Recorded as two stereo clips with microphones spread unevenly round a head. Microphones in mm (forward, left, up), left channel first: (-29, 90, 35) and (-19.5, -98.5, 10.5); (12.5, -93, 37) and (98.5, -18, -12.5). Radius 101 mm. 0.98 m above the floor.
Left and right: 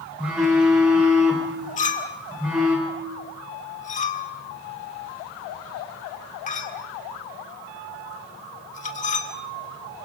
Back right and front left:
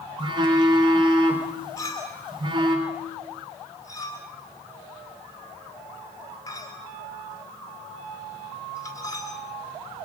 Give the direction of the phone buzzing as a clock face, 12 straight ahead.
12 o'clock.